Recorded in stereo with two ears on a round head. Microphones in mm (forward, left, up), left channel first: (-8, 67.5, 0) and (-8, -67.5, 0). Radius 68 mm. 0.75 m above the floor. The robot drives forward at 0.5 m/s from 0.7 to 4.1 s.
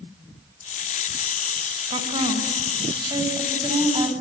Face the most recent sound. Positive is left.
turn(degrees=-30)  # may be behind; listen again after turning